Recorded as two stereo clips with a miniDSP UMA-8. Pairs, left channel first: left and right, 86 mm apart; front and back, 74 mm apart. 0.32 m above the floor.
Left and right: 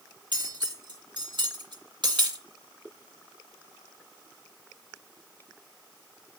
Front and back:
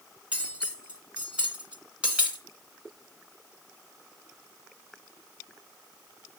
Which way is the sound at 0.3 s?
105° right.